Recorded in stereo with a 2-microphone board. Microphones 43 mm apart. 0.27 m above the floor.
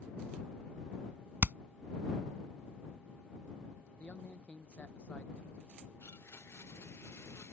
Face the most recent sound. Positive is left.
turn(degrees=75)  # may be behind; listen again after turning